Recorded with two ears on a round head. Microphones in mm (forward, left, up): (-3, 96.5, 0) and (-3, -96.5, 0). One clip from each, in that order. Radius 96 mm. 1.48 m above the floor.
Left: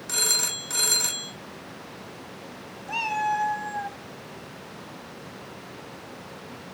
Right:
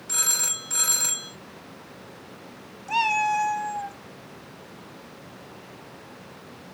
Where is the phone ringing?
20° left (ahead or behind), 3.5 m.